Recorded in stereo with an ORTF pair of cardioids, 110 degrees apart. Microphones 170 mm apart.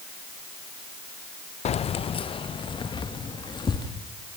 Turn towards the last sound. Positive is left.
turn(degrees=25)